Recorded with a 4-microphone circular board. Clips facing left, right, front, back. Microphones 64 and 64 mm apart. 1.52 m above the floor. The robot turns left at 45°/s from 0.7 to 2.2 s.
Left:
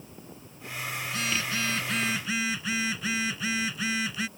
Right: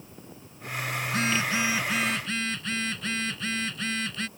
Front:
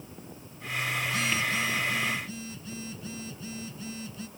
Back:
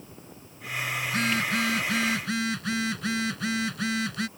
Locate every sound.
1.1 s a phone buzzing: 135° right; by 4.3 s 175° left